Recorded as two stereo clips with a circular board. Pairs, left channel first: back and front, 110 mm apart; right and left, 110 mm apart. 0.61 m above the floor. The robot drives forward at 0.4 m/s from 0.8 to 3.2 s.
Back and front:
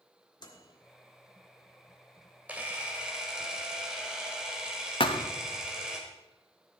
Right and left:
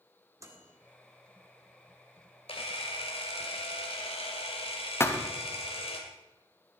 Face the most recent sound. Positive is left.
turn(degrees=-155)